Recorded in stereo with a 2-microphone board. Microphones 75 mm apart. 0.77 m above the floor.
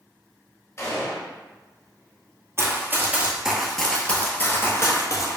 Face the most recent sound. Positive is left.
turn(degrees=50)  # may be behind; listen again after turning